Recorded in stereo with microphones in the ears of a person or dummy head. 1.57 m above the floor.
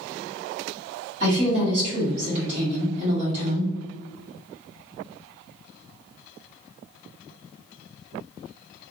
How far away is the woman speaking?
About 1.8 m.